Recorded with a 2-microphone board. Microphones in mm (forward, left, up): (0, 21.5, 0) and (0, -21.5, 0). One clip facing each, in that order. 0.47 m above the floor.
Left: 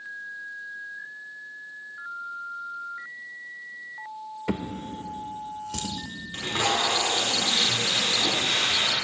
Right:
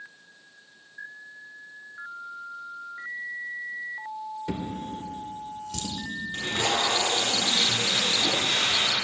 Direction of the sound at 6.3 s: 35° left (ahead or behind).